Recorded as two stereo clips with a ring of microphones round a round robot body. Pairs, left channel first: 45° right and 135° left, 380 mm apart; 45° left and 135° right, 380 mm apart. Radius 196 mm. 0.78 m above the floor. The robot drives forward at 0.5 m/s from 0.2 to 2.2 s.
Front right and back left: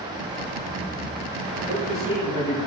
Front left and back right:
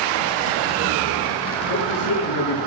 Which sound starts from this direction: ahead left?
A man speaking, at 1.7 s.